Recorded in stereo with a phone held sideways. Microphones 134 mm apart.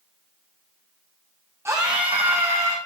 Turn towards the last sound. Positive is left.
turn(degrees=-50)  # may be behind; listen again after turning